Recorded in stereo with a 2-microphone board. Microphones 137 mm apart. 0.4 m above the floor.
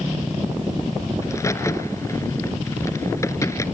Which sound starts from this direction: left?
A crack, at 1.2 s.